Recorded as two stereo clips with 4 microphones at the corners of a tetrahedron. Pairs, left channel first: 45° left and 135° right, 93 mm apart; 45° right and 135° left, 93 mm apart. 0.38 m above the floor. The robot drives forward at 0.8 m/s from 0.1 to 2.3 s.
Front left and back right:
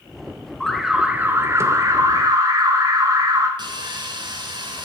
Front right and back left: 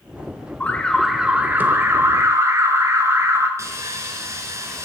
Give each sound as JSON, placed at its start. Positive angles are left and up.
{"t": 0.6, "sound": "an alarm", "azimuth_deg": -25, "distance_m": 0.8}
{"t": 3.6, "sound": "sawing", "azimuth_deg": -170, "distance_m": 1.5}